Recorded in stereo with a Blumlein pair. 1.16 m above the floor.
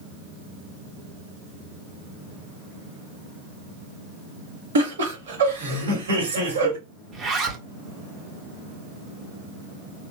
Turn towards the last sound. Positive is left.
turn(degrees=-25)